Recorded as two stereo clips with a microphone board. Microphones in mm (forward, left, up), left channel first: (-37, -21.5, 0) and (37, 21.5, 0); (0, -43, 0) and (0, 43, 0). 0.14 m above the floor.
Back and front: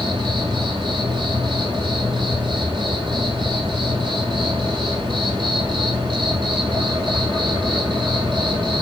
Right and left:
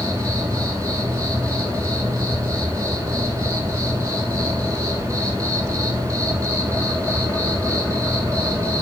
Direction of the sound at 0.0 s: 40° left.